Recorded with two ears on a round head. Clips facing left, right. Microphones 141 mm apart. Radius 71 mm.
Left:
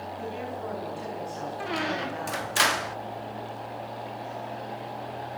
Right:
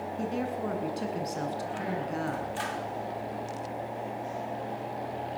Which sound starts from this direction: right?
A woman speaking, at 0.2 s.